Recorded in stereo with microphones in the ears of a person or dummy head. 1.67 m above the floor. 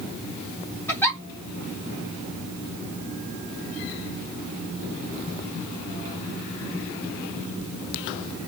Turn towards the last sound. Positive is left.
turn(degrees=15)  # may be behind; listen again after turning